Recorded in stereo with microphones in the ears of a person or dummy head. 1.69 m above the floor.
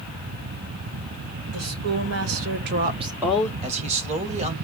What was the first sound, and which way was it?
A woman speaking, 80° right.